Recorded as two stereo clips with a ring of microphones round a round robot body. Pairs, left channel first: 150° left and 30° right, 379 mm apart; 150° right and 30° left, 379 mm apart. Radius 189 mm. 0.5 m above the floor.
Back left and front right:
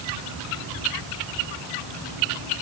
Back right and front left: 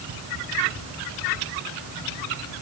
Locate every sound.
Only background noise.